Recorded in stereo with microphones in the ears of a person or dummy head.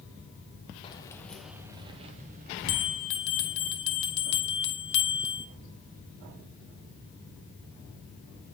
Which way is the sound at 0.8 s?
25° left (ahead or behind).